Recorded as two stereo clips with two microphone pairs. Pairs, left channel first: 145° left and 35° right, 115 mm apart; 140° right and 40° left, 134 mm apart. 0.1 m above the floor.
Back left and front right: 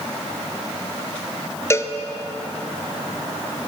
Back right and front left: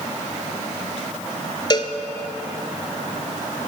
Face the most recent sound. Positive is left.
turn(degrees=-170)